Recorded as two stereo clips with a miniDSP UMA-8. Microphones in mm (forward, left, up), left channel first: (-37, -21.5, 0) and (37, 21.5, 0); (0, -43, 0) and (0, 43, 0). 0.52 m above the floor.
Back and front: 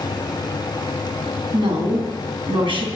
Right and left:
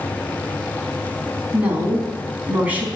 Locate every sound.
1.5 s a woman speaking: 20° left, 3.5 m